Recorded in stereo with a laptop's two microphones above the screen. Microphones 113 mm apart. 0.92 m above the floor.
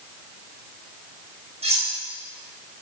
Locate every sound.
1.6 s cutlery clinking: 70° right (ahead or behind), 3.5 m